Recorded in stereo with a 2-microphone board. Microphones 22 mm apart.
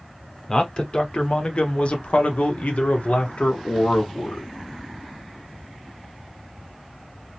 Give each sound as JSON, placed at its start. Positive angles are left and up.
{"t": 0.5, "sound": "a man speaking", "side_deg": 35, "distance_m": 1.7}